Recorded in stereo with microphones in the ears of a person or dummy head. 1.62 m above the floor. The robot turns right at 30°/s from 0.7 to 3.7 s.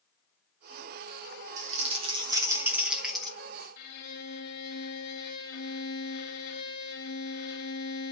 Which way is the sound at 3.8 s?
50° left (ahead or behind).